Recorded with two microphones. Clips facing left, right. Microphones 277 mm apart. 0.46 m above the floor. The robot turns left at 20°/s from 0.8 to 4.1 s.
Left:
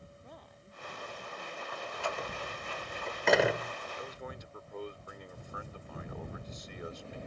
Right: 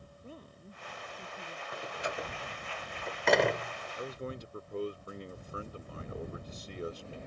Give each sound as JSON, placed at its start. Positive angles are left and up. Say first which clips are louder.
{"t": 0.2, "sound": "a woman speaking", "louder": "right 4 dB", "side_deg": -35}
{"t": 1.7, "sound": "a door slam", "louder": "right 1 dB", "side_deg": -25}
{"t": 4.0, "sound": "a man speaking", "louder": "right 4 dB", "side_deg": -35}